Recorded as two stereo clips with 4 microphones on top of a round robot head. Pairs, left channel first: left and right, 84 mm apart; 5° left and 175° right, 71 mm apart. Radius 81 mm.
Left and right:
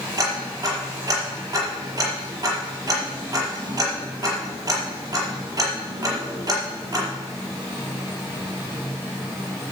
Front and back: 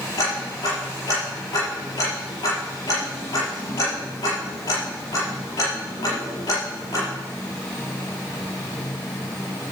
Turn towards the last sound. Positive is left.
turn(degrees=-40)